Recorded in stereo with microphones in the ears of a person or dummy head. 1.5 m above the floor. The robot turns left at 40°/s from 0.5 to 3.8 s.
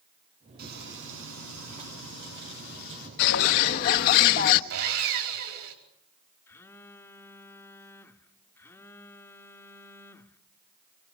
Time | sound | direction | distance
0.6 | frying | 50° right | 9.5 m
3.2 | a bird | 60° left (ahead or behind) | 1.2 m
4.7 | sawing | 70° right (ahead or behind) | 4.5 m
6.5 | a phone buzzing | 15° left (ahead or behind) | 1.3 m